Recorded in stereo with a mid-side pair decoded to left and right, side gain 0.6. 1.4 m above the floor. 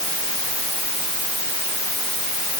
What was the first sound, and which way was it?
Only background noise.